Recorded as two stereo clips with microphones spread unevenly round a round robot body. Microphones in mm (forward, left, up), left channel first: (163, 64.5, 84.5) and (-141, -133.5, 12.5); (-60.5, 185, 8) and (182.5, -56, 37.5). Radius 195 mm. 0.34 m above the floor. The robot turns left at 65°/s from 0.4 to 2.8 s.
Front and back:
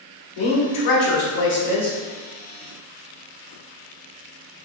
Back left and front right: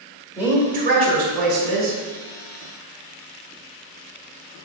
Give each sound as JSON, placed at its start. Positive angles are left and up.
{"t": 0.4, "sound": "a woman speaking", "azimuth_deg": 45, "distance_m": 1.4}